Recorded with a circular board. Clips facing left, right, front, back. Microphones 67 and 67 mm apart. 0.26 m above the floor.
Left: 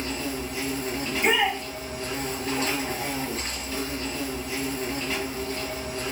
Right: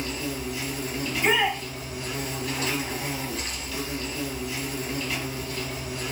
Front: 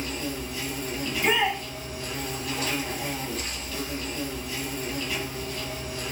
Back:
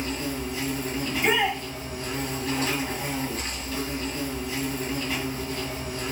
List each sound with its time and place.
0.0 s an insect: 135° left, 1.0 m
1.0 s a shout: 135° left, 1.3 m